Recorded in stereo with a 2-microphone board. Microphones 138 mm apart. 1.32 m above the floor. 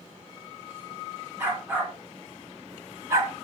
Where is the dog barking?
15° right (ahead or behind), 3.5 m; by 3.3 s 25° right (ahead or behind), 1.6 m.